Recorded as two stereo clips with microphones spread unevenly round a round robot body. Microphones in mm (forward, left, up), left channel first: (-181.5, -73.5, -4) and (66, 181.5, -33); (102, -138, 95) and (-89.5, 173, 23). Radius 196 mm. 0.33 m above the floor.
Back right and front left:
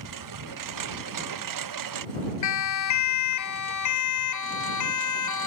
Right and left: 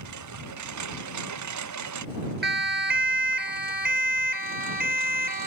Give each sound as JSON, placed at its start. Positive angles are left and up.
{"t": 0.0, "sound": "a lawn mower", "azimuth_deg": 80}
{"t": 2.4, "sound": "a siren", "azimuth_deg": -175}